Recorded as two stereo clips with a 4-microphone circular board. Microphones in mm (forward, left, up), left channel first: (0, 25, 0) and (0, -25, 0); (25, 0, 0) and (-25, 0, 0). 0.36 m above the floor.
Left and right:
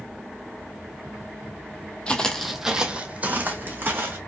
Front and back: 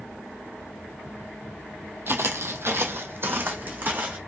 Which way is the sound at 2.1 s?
155° left.